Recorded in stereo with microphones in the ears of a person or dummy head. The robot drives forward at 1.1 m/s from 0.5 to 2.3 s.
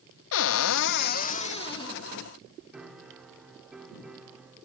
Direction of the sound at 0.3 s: 70° left (ahead or behind).